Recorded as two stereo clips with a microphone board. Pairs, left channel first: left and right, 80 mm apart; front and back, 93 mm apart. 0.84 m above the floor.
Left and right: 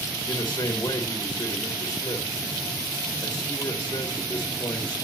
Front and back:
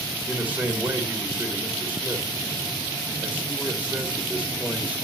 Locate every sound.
0.3 s a man speaking: 115° left, 1.8 m